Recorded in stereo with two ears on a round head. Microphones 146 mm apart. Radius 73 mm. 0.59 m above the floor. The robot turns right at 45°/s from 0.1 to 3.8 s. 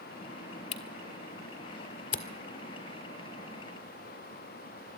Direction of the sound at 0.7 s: 40° left (ahead or behind).